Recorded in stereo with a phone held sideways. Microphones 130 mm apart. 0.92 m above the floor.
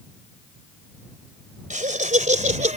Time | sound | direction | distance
1.7 | laughter | 75° right (ahead or behind) | ?